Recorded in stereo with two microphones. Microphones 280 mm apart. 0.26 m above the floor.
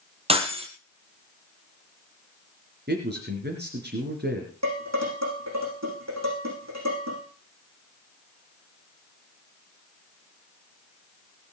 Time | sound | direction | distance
0.3 | breaking glass | 20° right (ahead or behind) | 2.5 m
2.9 | a man speaking | 35° right (ahead or behind) | 3 m
4.6 | dishes clattering | 70° right (ahead or behind) | 9.5 m